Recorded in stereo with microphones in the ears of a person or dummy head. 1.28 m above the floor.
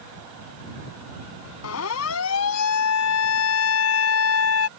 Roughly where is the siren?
Left.